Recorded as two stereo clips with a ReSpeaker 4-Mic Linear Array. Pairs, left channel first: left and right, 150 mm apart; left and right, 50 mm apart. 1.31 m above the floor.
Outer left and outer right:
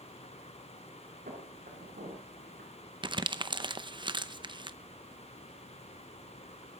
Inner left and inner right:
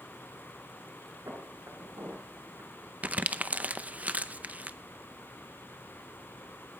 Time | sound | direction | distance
1.3 | footsteps | 75° right (ahead or behind) | 5.5 m
3.0 | crumpling | 30° right (ahead or behind) | 0.6 m